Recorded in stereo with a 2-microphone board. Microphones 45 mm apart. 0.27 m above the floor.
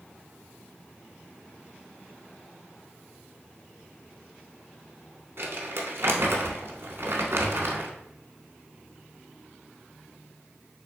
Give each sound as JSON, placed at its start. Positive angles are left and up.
{"t": 5.4, "sound": "crumpling", "side_deg": -65, "distance_m": 0.8}